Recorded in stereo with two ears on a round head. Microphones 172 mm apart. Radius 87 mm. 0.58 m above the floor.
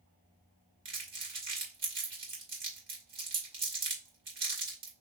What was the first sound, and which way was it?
Crumpling, 30° right (ahead or behind).